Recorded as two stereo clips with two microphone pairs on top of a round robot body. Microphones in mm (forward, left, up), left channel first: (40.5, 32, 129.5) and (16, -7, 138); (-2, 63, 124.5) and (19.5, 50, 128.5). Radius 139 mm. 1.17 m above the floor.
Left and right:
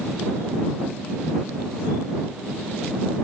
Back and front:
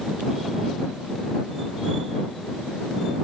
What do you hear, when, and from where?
Only background noise.